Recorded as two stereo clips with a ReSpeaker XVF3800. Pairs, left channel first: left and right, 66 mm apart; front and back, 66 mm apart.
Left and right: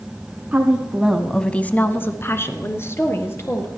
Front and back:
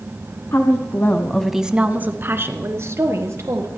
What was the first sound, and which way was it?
A woman speaking, 30° right.